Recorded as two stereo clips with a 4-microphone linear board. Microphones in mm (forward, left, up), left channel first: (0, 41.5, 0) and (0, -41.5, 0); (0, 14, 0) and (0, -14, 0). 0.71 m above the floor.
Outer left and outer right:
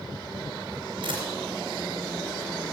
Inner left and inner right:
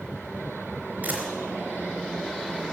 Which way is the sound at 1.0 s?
65° right (ahead or behind).